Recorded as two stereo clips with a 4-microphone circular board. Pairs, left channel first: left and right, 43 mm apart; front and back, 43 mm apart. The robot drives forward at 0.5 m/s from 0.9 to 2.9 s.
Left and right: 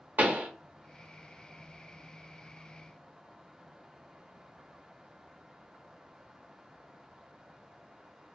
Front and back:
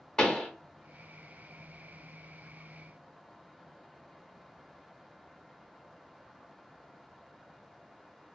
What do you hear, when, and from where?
0.2 s a pop: 70° right, 0.8 m